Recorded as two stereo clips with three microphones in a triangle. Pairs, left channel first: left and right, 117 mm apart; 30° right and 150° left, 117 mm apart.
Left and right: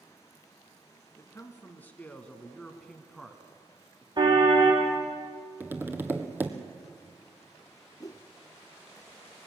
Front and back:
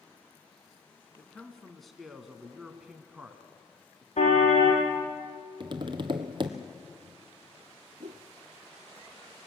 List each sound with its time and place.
1.2 s a man speaking: 50° left, 1.9 m; by 4.1 s 155° right, 1.8 m
4.2 s a car horn: 45° right, 3.5 m
5.6 s tapping: 160° right, 1.3 m
8.0 s a whoosh: 145° left, 0.8 m